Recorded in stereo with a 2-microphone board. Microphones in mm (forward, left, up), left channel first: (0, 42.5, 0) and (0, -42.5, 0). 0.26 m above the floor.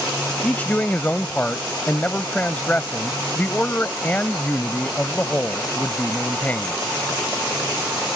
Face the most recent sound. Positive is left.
turn(degrees=20)  # may be behind; listen again after turning